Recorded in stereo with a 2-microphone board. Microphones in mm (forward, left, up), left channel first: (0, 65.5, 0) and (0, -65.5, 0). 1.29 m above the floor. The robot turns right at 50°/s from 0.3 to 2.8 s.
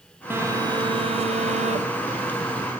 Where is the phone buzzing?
160° right, 0.9 m; by 2.7 s 40° right, 0.9 m.